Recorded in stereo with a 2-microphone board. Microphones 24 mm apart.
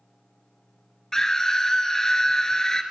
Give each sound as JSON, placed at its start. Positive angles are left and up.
{"t": 1.1, "sound": "a scream", "side_deg": 25, "distance_m": 1.6}